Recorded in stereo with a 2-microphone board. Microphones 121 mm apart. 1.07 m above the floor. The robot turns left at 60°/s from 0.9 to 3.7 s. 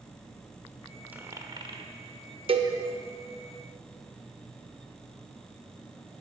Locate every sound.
1.1 s a dropped coin: 15° right (ahead or behind), 1.3 m; by 1.9 s 55° right (ahead or behind), 1.3 m
2.5 s a cowbell: 50° right (ahead or behind), 1.0 m; by 2.8 s 45° right (ahead or behind), 1.0 m